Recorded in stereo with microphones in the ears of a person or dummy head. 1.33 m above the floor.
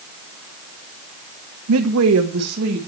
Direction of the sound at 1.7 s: 75° right (ahead or behind).